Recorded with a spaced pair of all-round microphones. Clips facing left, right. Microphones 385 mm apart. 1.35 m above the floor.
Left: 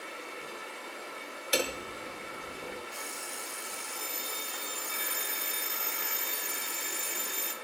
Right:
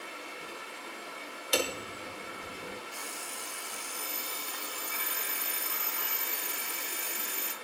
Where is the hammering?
5° right (ahead or behind), 0.8 m.